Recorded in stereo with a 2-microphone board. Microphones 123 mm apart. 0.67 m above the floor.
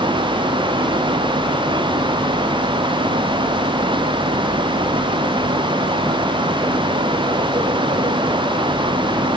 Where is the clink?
I don't hear a clink.